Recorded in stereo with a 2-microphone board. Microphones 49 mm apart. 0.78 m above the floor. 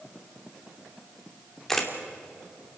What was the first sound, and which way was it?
A camera shutter, 5° left (ahead or behind).